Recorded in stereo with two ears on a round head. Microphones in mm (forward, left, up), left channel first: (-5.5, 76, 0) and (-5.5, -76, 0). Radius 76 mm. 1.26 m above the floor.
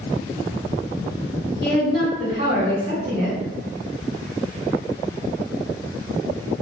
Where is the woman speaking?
55° left (ahead or behind), 1.8 m.